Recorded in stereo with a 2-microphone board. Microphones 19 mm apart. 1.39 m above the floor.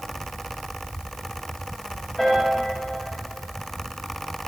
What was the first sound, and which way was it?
A piano, 20° left (ahead or behind).